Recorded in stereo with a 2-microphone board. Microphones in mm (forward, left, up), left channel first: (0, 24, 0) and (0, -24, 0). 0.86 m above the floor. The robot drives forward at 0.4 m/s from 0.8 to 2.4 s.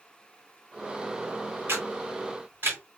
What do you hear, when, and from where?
1.7 s a camera shutter: 55° right (ahead or behind), 2 m; by 2.8 s 45° right (ahead or behind), 2.5 m